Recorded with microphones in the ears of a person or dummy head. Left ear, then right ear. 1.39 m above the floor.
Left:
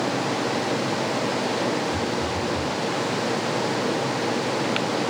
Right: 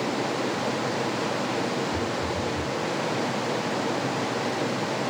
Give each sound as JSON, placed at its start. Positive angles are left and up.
{"t": 1.9, "sound": "a phone buzzing", "side_deg": 0, "distance_m": 1.2}